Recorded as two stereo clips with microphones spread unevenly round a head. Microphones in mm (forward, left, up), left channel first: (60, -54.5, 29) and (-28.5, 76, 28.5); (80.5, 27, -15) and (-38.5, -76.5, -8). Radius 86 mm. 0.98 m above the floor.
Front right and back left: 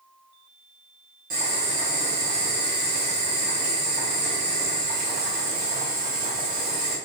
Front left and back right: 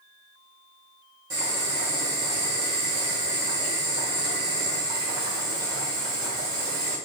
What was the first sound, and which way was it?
Boiling, 150° left.